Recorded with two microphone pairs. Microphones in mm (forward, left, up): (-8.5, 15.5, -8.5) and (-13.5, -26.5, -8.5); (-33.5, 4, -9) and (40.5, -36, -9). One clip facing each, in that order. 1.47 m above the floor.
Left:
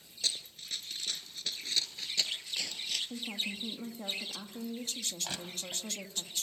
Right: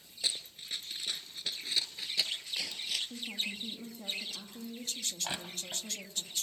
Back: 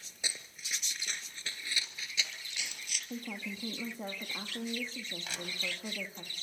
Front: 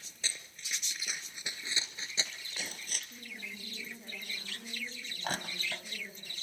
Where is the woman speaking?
145° left, 2.5 m.